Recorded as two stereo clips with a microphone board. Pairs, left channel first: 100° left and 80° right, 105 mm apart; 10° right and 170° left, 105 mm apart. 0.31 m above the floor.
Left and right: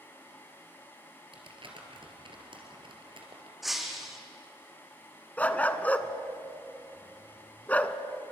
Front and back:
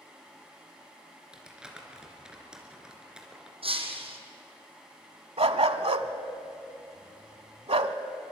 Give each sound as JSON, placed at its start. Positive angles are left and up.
{"t": 1.3, "sound": "crumpling", "azimuth_deg": -110, "distance_m": 3.0}
{"t": 3.6, "sound": "breaking glass", "azimuth_deg": -170, "distance_m": 2.5}
{"t": 5.4, "sound": "a dog barking", "azimuth_deg": 175, "distance_m": 1.0}